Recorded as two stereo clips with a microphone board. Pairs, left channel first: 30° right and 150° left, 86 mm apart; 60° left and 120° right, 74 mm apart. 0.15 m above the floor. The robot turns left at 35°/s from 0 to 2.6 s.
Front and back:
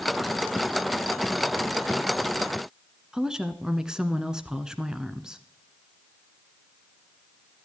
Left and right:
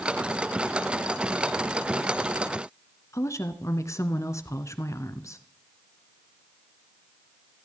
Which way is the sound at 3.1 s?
70° left.